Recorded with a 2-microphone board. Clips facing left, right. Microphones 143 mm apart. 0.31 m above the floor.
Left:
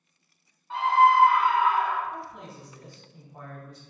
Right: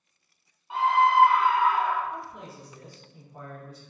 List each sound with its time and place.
0.7 s a scream: 15° right (ahead or behind), 1.0 m; by 2.0 s 45° right (ahead or behind), 1.5 m
2.1 s a man speaking: 5° right (ahead or behind), 1.5 m